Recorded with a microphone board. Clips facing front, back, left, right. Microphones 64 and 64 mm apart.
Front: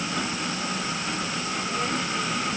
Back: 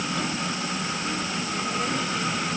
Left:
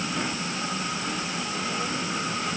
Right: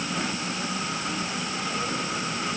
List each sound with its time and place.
Only background noise.